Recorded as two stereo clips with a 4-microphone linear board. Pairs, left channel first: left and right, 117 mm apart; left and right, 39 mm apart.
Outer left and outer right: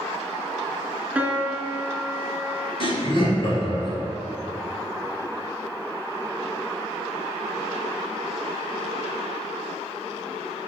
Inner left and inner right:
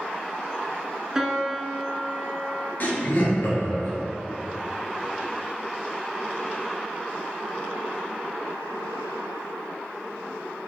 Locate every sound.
1.1 s a piano: 15° right (ahead or behind), 0.5 m
2.8 s laughter: 50° left (ahead or behind), 1.8 m